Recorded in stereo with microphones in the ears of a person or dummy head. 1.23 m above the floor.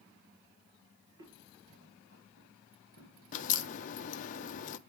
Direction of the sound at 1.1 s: 60° right (ahead or behind).